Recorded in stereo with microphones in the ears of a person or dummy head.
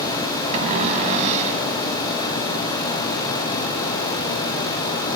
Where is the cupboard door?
40° right (ahead or behind), 4.5 m.